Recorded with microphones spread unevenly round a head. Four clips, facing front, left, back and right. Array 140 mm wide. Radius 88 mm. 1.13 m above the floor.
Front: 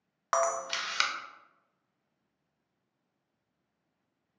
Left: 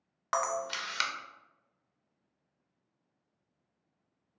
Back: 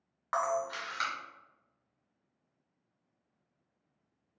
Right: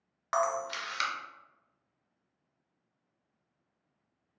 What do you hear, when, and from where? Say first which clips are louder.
0.3 s a camera shutter: right 2 dB, front 2 dB; 10° left, 0.5 m